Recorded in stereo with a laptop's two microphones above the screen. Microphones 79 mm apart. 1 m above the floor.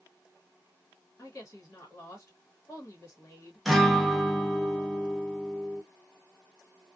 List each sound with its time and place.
1.2 s a woman speaking: 30° left (ahead or behind), 1.2 m
3.6 s a guitar: centre (ahead or behind), 0.8 m